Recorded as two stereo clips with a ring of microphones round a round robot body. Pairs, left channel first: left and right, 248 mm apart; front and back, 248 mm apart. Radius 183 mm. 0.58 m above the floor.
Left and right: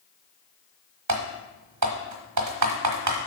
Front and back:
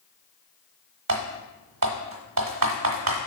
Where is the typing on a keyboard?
130° right, 0.6 m.